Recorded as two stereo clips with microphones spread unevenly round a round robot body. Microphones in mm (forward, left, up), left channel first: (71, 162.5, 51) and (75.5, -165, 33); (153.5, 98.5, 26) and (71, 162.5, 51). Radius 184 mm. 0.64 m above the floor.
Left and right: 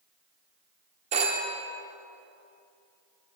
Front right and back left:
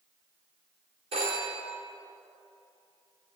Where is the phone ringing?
160° right, 0.7 m.